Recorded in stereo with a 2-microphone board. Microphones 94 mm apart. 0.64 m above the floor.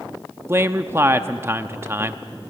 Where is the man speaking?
25° right (ahead or behind), 0.7 m.